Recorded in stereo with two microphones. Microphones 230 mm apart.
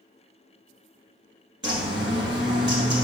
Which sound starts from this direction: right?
A bird, at 1.6 s.